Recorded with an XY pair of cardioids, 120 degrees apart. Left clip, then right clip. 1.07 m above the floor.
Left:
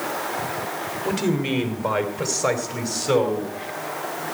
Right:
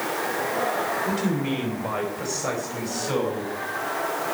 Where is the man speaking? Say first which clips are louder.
Left 2 dB; 55° left, 2.5 m; by 4.3 s 70° left, 6 m.